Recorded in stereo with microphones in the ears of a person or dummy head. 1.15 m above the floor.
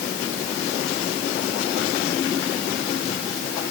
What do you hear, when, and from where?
Only background noise.